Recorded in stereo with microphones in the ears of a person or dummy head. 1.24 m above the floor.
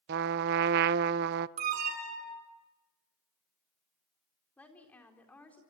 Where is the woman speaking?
5° left (ahead or behind), 4 m.